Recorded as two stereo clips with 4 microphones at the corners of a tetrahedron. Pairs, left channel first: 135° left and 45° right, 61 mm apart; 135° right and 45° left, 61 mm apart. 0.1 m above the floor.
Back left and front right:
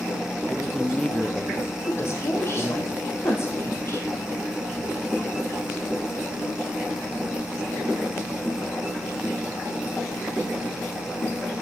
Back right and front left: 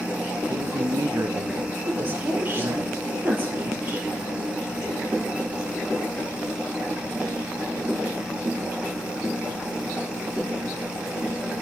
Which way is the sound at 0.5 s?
60° left.